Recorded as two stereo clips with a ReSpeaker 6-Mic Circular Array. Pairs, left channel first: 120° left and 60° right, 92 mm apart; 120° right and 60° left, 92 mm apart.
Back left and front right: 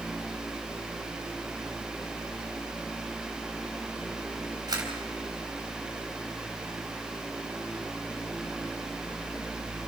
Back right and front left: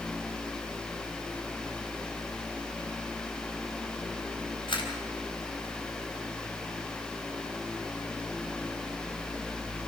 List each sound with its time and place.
4.7 s a camera shutter: 100° right, 3.5 m